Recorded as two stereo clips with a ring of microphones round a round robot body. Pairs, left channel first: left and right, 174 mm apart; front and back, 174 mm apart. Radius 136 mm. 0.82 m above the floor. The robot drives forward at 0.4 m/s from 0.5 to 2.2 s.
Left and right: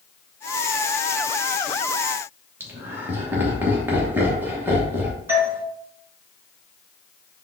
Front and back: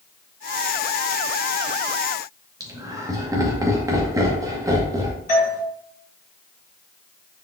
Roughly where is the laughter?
Behind right.